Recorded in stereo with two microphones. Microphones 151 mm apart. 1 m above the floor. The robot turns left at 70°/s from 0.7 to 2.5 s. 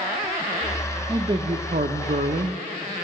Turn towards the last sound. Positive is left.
turn(degrees=-125)